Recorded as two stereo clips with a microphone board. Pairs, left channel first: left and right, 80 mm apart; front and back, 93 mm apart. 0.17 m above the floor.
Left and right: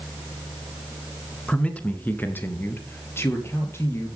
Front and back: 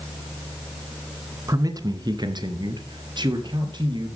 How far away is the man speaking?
About 1.6 m.